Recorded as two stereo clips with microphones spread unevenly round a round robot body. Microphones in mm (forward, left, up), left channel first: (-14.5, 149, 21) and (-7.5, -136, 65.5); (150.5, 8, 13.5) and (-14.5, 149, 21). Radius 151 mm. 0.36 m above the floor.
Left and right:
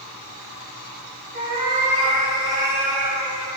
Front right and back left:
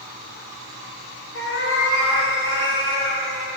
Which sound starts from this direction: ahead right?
A cat meowing, at 1.3 s.